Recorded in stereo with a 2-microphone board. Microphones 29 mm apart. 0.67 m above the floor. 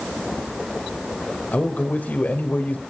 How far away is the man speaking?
About 2.5 m.